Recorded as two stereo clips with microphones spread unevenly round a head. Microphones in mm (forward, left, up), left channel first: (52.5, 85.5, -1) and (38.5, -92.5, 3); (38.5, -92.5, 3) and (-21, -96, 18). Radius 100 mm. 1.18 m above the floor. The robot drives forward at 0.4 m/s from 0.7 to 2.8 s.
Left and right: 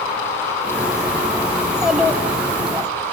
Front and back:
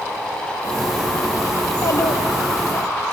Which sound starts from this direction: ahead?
A child speaking, at 1.6 s.